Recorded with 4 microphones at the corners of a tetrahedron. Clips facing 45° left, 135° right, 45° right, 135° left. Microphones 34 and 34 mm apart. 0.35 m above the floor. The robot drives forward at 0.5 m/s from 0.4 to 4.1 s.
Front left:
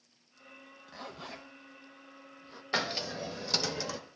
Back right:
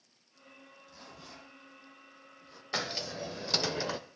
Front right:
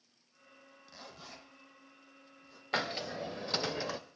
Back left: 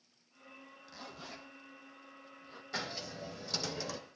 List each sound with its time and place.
0.9 s a zipper: 35° left, 1.1 m; by 2.6 s 110° left, 0.8 m
2.7 s a hiss: 30° right, 0.8 m; by 4.0 s 95° right, 0.6 m